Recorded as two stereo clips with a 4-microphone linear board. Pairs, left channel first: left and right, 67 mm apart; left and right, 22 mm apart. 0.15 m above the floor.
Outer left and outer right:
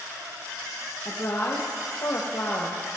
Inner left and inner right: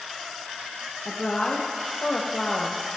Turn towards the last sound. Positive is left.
turn(degrees=65)  # may be behind; listen again after turning